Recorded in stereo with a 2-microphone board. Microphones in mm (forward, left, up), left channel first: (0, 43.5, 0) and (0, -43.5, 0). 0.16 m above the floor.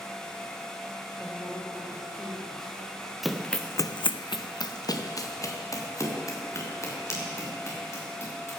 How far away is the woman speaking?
About 5 m.